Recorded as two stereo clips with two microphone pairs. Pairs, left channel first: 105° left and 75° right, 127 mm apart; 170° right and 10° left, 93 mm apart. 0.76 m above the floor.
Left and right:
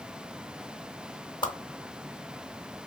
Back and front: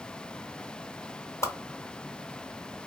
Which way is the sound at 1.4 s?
145° left.